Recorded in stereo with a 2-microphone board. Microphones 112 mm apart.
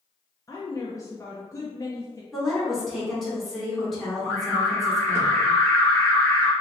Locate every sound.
0.5 s a woman speaking: 30° left (ahead or behind), 0.6 m
2.3 s a woman speaking: 5° left (ahead or behind), 1.6 m
4.2 s an alarm: 25° left (ahead or behind), 1.2 m